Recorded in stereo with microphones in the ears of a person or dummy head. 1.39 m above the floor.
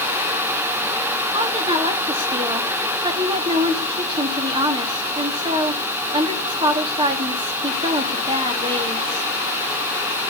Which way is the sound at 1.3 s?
25° right (ahead or behind).